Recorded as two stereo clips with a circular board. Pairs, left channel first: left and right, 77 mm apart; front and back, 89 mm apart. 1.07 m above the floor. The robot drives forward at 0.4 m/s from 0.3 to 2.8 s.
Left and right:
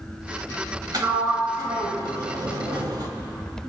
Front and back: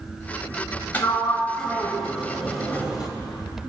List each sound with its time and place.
0.9 s a sliding door: 65° right, 1.6 m; by 3.1 s 100° right, 1.5 m